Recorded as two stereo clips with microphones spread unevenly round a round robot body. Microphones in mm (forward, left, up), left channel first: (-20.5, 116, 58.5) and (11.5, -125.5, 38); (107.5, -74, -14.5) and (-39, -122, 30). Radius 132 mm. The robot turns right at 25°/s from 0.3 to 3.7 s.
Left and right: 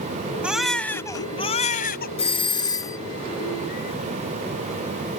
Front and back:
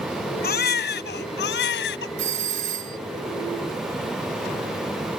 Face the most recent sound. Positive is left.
turn(degrees=-170)